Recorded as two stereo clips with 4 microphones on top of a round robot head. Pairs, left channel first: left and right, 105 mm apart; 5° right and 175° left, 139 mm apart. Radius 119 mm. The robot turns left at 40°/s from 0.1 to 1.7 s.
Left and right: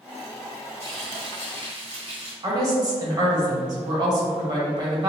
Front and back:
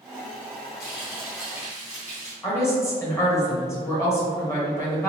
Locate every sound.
0.8 s frying: 20° right, 1.6 m; by 2.3 s 55° right, 1.6 m
2.4 s a woman speaking: 65° right, 1.5 m